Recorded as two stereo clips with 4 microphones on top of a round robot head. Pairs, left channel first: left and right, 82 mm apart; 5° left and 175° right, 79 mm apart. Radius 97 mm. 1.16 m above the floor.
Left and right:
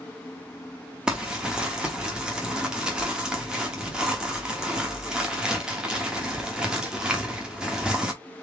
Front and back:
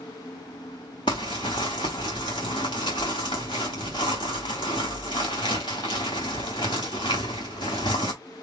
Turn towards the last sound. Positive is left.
turn(degrees=-15)